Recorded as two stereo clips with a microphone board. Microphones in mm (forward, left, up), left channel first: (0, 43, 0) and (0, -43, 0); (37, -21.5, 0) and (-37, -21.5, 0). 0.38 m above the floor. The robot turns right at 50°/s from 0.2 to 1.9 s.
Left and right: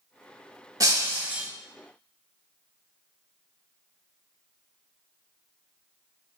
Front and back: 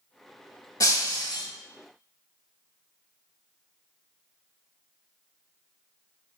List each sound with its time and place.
0.8 s breaking glass: 40° right, 0.6 m; by 1.5 s 5° right, 0.6 m